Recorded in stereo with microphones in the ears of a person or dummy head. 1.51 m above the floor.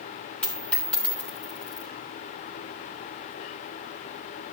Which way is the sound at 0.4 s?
5° left (ahead or behind).